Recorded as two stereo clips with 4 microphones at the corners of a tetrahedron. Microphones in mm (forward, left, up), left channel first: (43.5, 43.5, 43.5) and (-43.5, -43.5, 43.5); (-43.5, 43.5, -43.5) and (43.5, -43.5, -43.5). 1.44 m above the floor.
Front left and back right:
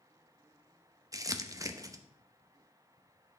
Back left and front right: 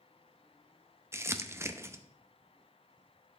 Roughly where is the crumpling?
Right.